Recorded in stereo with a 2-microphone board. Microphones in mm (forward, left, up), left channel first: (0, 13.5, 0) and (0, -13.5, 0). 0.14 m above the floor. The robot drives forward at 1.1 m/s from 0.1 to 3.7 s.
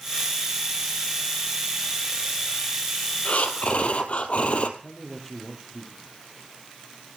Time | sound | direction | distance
3.2 | breathing | 70° left (ahead or behind) | 1.8 m
4.8 | a man speaking | 5° left (ahead or behind) | 4 m